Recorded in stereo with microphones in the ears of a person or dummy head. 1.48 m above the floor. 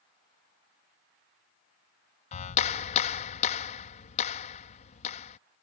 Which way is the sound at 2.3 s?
50° left (ahead or behind).